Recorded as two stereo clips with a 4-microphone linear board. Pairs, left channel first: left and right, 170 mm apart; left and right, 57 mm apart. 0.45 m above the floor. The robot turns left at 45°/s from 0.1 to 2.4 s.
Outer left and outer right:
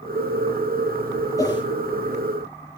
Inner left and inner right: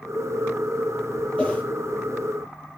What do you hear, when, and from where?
1.4 s a whoosh: 20° left (ahead or behind), 8 m; by 1.6 s 30° left (ahead or behind), 8 m